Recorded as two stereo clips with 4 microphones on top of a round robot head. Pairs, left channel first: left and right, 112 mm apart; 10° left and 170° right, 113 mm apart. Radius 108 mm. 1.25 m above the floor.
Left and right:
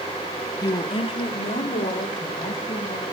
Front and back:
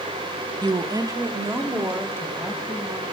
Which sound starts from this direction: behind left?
A woman speaking, at 0.6 s.